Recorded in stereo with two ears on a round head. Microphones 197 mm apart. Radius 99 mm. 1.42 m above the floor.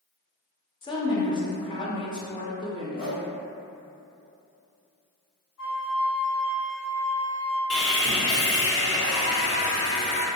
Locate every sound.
0.8 s a woman speaking: 20° left (ahead or behind), 0.5 m
3.0 s a whoosh: 25° left (ahead or behind), 0.6 m
5.6 s a flute: 50° left (ahead or behind), 0.7 m
7.7 s sawing: 65° left (ahead or behind), 0.7 m